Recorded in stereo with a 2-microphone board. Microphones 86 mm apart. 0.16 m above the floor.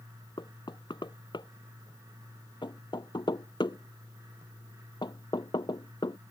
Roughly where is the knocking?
Left.